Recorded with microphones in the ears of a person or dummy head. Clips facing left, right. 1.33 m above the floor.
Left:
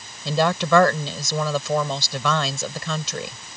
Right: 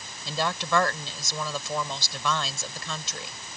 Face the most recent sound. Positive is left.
turn(degrees=65)  # may be behind; listen again after turning